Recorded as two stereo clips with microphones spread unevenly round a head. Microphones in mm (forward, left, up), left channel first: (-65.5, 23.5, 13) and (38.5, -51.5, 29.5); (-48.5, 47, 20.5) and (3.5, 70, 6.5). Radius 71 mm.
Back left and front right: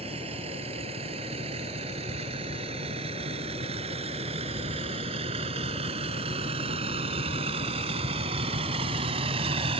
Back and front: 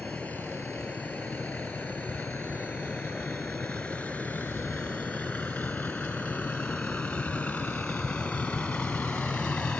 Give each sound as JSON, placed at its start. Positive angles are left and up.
{"t": 0.0, "sound": "a vehicle", "azimuth_deg": -80}